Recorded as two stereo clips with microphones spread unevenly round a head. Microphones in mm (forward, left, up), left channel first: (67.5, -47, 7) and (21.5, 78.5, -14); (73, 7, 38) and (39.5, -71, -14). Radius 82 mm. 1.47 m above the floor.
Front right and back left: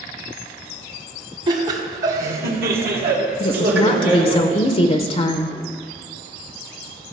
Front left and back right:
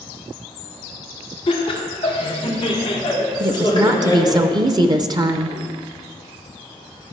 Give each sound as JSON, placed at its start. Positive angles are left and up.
{"t": 1.5, "sound": "laughter", "azimuth_deg": 70, "distance_m": 1.2}
{"t": 3.4, "sound": "a woman speaking", "azimuth_deg": -55, "distance_m": 0.6}